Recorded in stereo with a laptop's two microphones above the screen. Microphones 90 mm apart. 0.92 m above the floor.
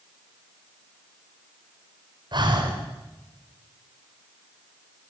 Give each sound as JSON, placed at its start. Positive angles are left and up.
{"t": 2.3, "sound": "breathing", "side_deg": -55, "distance_m": 4.0}